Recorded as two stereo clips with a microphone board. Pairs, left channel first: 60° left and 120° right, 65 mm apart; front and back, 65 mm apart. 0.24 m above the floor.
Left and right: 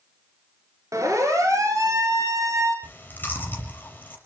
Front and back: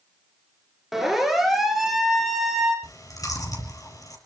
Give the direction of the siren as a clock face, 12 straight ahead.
3 o'clock.